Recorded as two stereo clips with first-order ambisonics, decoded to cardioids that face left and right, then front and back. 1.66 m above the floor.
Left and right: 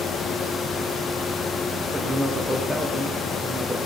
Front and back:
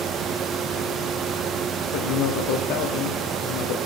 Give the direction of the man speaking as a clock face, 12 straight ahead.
12 o'clock.